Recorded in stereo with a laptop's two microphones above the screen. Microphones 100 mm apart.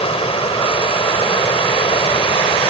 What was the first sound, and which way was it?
Running water, 85° left.